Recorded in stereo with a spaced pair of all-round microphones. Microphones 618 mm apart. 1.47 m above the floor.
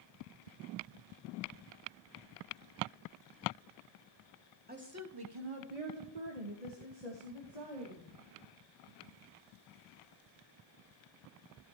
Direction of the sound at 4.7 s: 15° right (ahead or behind).